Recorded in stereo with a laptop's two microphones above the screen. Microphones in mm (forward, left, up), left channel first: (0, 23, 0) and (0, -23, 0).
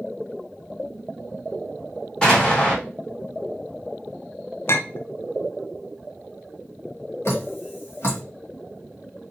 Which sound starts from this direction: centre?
An explosion, at 2.2 s.